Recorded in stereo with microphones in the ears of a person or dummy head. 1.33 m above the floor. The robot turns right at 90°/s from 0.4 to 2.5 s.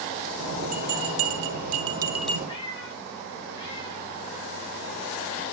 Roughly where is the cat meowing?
Left.